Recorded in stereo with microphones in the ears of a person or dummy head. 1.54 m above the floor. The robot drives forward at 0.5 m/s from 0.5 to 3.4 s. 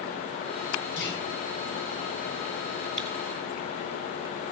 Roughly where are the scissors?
Centre.